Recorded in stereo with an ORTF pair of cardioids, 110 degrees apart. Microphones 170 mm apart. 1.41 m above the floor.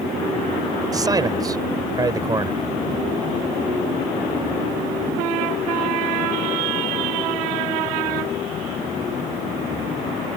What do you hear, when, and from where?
0.9 s a man speaking: 20° right